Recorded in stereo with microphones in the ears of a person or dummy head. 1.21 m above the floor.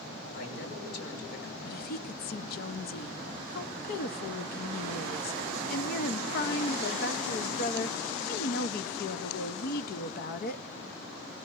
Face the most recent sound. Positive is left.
turn(degrees=50)  # may be behind; listen again after turning